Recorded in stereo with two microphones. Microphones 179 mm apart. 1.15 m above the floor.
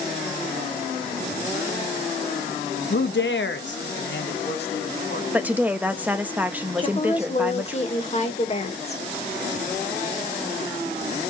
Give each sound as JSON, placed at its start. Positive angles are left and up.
{"t": 2.9, "sound": "a man speaking", "side_deg": 70, "distance_m": 0.8}
{"t": 5.3, "sound": "a woman speaking", "side_deg": -10, "distance_m": 1.0}
{"t": 6.8, "sound": "a woman speaking", "side_deg": 35, "distance_m": 1.8}